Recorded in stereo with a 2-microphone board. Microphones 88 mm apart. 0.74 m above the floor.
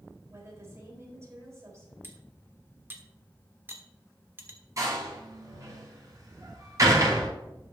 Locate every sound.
0.3 s a woman speaking: 30° right (ahead or behind), 4 m
2.0 s cutlery clinking: 25° right (ahead or behind), 1.3 m
4.8 s a door slam: 35° right (ahead or behind), 5 m